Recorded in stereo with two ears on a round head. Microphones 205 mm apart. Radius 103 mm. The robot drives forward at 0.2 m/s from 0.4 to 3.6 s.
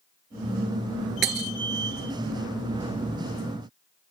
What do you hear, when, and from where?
1.2 s breaking glass: 55° right (ahead or behind), 3 m